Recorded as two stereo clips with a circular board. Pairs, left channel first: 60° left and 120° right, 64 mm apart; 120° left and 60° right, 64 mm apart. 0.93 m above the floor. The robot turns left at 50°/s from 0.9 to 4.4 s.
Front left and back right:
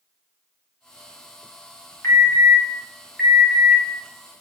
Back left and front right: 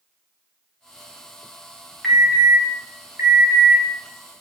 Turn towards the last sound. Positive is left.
turn(degrees=-85)